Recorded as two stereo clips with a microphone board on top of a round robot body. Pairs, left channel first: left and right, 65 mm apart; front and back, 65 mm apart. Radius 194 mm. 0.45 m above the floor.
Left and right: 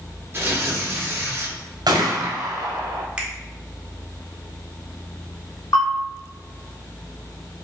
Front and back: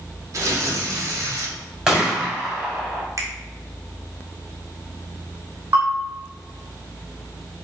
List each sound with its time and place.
0.3 s tearing paper: 145° right, 1.5 m
1.9 s a gunshot: 100° right, 1.2 m
3.2 s a finger snap: 160° right, 1.3 m
5.7 s a bell: 125° left, 1.0 m